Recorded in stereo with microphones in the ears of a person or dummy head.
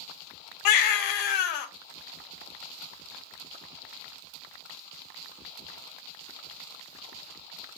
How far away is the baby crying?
About 0.6 m.